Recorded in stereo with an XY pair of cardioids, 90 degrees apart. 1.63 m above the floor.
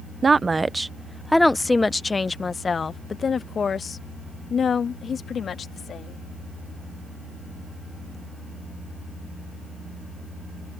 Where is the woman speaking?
40° right; by 6.2 s 60° left.